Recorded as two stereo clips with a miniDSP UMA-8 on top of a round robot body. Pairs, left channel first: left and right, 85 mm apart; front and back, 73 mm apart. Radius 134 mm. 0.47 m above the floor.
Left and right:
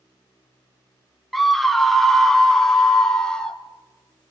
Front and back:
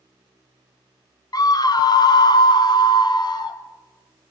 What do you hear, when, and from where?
1.3 s a scream: straight ahead, 1.2 m; by 3.6 s 10° left, 2.5 m